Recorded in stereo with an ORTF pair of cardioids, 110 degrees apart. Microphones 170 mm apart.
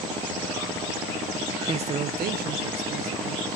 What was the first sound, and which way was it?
A man speaking, 35° right.